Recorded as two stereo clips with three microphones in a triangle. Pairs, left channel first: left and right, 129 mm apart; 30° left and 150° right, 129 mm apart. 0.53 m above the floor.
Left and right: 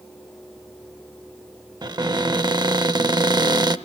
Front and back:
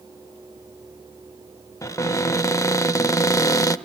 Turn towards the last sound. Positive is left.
turn(degrees=-35)